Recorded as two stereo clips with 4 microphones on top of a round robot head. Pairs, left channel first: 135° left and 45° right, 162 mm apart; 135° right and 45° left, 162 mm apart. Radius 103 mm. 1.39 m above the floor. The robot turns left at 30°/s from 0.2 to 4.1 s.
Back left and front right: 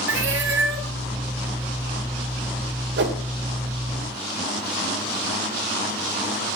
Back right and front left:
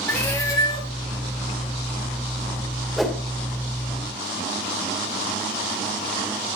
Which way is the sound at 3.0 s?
45° right.